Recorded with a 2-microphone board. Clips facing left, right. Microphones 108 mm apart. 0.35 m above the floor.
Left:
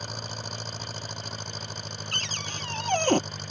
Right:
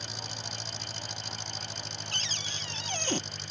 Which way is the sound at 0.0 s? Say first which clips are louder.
Left 4 dB; 50° left (ahead or behind).